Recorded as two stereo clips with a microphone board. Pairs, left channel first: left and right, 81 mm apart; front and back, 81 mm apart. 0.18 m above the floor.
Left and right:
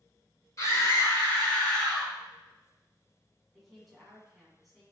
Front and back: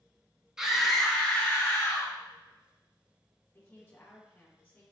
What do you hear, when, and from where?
0.6 s a scream: 100° left, 1.7 m; by 2.1 s 5° left, 1.9 m
3.5 s a woman speaking: straight ahead, 1.6 m